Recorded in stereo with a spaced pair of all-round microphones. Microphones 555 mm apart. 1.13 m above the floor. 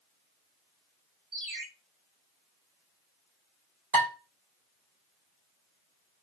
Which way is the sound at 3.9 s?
70° right (ahead or behind).